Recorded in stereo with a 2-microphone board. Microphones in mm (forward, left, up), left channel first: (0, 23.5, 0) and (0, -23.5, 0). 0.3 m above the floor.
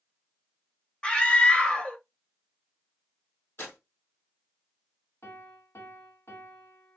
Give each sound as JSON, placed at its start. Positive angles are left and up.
{"t": 1.0, "sound": "a scream", "side_deg": 20, "distance_m": 1.0}
{"t": 3.6, "sound": "tearing paper", "side_deg": 55, "distance_m": 4.0}
{"t": 5.2, "sound": "a piano", "side_deg": 65, "distance_m": 1.1}